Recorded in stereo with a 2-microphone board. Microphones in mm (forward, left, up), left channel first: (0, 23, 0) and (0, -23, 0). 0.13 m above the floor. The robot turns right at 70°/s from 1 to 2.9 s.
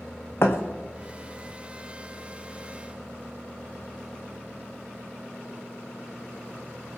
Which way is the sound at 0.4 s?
65° left (ahead or behind).